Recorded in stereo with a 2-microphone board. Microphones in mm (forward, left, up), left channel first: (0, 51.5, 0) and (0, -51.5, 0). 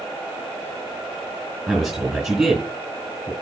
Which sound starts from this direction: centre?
A man speaking, at 1.7 s.